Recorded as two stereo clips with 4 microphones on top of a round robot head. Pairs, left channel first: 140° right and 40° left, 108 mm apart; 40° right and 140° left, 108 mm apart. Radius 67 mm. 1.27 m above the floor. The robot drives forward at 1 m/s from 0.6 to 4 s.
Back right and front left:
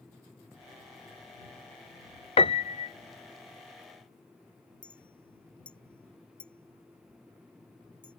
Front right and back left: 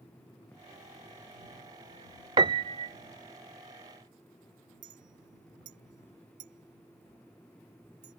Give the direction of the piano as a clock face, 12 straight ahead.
6 o'clock.